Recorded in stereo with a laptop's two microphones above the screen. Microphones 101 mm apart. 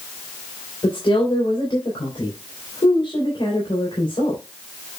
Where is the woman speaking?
55° left (ahead or behind), 3 m.